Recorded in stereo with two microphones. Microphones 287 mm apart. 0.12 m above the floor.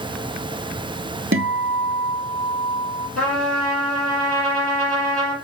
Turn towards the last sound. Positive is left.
turn(degrees=-55)  # may be behind; listen again after turning